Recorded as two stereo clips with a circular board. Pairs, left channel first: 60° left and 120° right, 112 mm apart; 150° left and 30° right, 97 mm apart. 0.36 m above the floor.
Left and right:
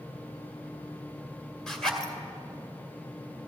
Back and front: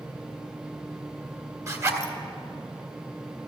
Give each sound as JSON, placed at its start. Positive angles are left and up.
{"t": 1.7, "sound": "a zipper", "azimuth_deg": -25, "distance_m": 1.7}